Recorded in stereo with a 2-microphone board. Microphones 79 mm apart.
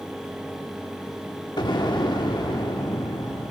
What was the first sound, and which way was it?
An explosion, 65° left (ahead or behind).